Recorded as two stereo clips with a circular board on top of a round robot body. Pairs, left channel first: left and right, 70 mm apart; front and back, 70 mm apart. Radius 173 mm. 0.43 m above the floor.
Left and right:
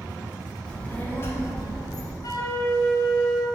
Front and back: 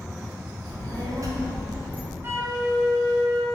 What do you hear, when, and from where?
0.7 s a child speaking: 165° left, 0.9 m; by 2.1 s 110° left, 0.9 m
2.2 s a flute: 125° left, 0.5 m